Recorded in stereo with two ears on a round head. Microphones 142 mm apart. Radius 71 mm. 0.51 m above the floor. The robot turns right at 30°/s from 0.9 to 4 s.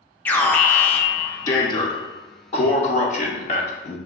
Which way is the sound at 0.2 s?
15° left.